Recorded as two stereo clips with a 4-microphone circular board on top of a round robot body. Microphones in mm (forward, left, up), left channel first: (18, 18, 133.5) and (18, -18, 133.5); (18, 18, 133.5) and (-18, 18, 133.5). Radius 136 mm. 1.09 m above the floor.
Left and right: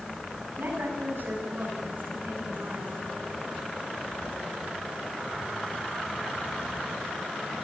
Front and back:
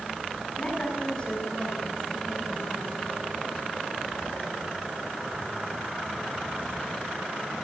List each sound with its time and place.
0.6 s a woman speaking: 60° right, 9.5 m; by 3.0 s 50° right, 11 m